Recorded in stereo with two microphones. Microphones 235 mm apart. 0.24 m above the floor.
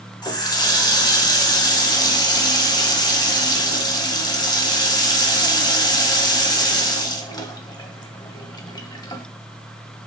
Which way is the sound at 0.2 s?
15° left (ahead or behind).